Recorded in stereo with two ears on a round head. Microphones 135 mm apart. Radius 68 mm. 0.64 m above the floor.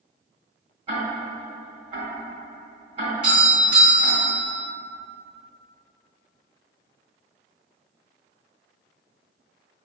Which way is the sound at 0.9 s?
40° right (ahead or behind).